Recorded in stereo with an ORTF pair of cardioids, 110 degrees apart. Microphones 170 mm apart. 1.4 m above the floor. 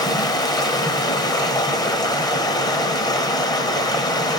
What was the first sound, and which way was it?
Running water, 25° left.